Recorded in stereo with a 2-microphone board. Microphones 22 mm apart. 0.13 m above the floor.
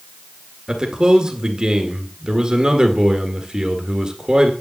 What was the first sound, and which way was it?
A man speaking, 40° right (ahead or behind).